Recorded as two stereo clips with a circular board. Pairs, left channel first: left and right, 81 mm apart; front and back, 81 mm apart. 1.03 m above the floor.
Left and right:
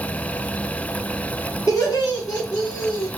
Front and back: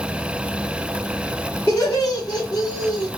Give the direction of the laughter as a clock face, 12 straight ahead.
10 o'clock.